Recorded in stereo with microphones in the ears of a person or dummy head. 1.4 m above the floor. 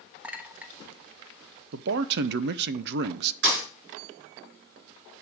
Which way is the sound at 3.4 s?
60° right (ahead or behind).